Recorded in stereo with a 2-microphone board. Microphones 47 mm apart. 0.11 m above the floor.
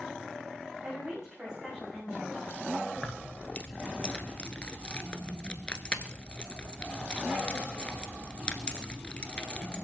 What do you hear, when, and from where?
0.8 s a woman speaking: 15° right (ahead or behind), 9.5 m
3.0 s keys jangling: 20° left (ahead or behind), 1.0 m